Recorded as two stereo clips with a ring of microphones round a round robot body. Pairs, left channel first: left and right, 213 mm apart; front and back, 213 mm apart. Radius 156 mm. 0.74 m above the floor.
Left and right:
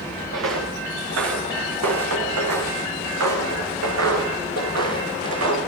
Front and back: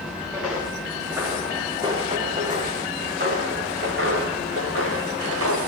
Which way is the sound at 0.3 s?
90° right.